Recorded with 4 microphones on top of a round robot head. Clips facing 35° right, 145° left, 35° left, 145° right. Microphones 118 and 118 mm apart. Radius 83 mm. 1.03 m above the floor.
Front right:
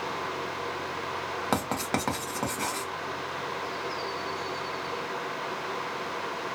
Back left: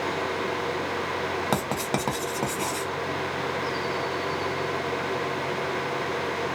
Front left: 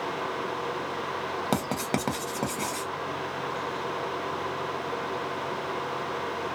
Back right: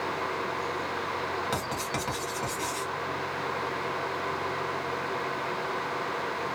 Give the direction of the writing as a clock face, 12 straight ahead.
10 o'clock.